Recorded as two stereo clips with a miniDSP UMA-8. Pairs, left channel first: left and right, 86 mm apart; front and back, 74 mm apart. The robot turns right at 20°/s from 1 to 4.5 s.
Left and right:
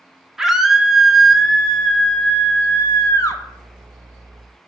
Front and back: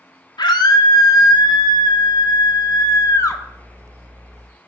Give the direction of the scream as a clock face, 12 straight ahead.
12 o'clock.